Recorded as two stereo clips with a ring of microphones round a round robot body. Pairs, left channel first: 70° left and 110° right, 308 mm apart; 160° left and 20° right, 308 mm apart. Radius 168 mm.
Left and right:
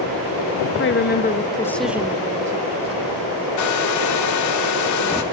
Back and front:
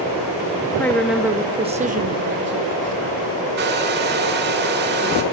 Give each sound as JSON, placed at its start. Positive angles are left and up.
{"t": 0.8, "sound": "a woman speaking", "azimuth_deg": 80, "distance_m": 1.2}
{"t": 3.6, "sound": "a hair dryer", "azimuth_deg": 35, "distance_m": 1.3}